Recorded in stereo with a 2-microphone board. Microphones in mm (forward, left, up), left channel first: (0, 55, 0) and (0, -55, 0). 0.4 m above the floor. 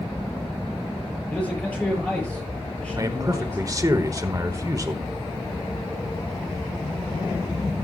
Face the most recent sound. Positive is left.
turn(degrees=-30)  # may be behind; listen again after turning